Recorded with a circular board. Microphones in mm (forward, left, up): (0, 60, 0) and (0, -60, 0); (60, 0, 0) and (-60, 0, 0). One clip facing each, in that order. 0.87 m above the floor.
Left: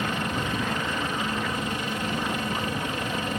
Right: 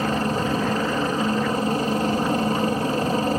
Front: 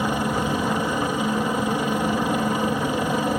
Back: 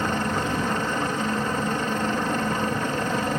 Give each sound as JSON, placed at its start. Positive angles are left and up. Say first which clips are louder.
{"t": 0.0, "sound": "a helicopter", "louder": "right 6 dB, front 2 dB", "azimuth_deg": -75}